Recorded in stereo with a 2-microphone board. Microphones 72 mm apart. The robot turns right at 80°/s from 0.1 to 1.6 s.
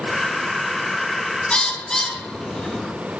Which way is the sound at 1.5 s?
15° left (ahead or behind).